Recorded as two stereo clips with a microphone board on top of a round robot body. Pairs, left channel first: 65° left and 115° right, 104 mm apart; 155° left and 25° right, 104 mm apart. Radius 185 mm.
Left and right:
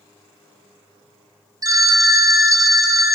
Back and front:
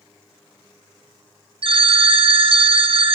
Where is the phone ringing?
55° right, 1.0 m.